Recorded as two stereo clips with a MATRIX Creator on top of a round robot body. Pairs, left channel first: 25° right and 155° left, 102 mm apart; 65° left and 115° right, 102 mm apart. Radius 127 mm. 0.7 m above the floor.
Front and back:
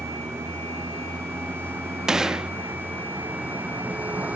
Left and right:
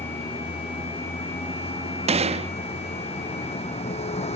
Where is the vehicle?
90° left; by 4.4 s 80° left.